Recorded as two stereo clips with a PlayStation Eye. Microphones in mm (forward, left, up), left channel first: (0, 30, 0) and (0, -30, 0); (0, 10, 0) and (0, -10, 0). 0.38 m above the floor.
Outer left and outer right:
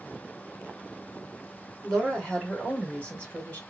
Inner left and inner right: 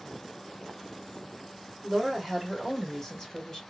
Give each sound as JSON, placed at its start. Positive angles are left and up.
{"t": 1.8, "sound": "a woman speaking", "side_deg": 10, "distance_m": 1.4}